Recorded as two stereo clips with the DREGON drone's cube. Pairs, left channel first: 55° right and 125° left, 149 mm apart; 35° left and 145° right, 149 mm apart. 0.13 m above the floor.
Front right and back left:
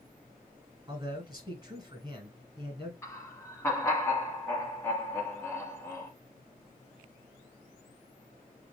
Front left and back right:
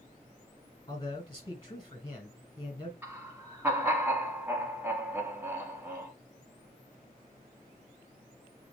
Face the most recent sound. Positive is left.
turn(degrees=-90)